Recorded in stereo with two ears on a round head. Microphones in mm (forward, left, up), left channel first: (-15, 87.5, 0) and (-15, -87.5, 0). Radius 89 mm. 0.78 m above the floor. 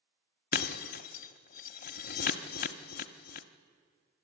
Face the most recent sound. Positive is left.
turn(degrees=45)  # may be behind; listen again after turning